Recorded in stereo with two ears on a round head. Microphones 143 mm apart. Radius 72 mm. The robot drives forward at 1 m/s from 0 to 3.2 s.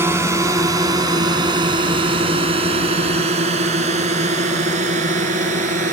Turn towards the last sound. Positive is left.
turn(degrees=-50)  # may be behind; listen again after turning